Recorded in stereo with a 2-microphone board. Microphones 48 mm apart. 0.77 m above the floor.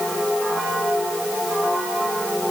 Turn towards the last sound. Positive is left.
No sound to turn to.